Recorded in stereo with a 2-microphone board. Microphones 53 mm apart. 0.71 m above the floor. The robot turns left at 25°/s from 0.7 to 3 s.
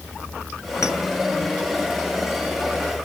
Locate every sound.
0.8 s a clink: 65° left (ahead or behind), 2.0 m; by 1.0 s 70° left (ahead or behind), 2.0 m